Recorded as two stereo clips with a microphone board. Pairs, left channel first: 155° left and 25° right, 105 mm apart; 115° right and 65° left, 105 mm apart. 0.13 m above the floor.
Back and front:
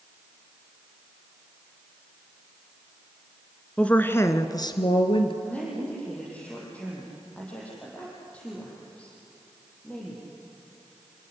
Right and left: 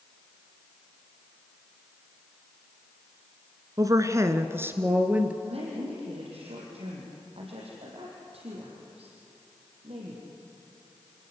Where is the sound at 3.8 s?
80° left, 1.2 m; by 5.3 s 140° left, 1.9 m.